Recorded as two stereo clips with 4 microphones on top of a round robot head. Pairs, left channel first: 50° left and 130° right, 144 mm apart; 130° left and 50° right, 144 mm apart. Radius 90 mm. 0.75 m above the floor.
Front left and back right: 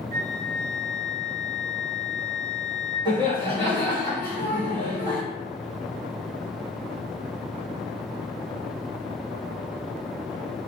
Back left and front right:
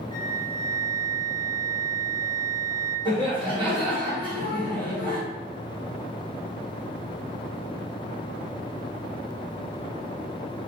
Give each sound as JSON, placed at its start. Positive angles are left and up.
{"t": 0.1, "sound": "a flute", "azimuth_deg": -95, "distance_m": 0.7}
{"t": 3.0, "sound": "laughter", "azimuth_deg": -90, "distance_m": 1.3}